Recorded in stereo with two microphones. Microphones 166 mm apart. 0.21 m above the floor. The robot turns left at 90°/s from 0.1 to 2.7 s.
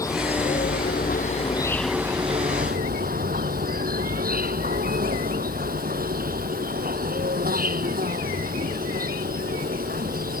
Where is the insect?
160° left; by 10.4 s 75° right.